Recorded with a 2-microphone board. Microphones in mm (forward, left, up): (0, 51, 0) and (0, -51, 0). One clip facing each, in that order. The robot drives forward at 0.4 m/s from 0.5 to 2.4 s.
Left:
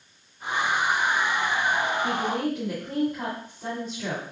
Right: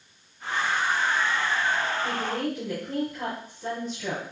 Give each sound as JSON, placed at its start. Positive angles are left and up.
{"t": 2.0, "sound": "a woman speaking", "side_deg": 60, "distance_m": 2.5}